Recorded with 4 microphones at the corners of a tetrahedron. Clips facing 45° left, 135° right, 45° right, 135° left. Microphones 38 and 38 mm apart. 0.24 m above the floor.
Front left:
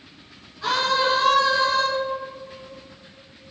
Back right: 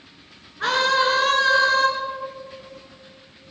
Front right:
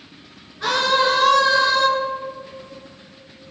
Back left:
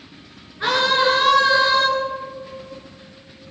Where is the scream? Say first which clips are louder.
Back right 2 dB, back left 1 dB; 165° right, 3 m.